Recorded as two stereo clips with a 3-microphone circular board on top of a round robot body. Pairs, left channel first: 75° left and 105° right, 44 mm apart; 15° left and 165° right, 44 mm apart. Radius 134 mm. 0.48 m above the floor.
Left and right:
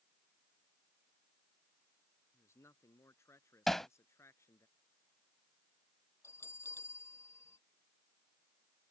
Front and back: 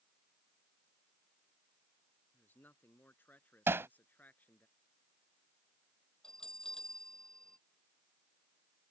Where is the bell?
95° left.